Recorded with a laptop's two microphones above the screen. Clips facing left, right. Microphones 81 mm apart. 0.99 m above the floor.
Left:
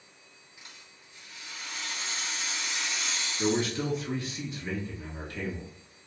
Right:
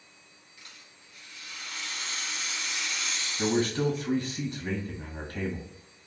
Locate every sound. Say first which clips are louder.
0.6 s a rattle: left 1 dB; 25° left (ahead or behind), 0.8 m
3.4 s a man speaking: right 2 dB; 55° right (ahead or behind), 1.3 m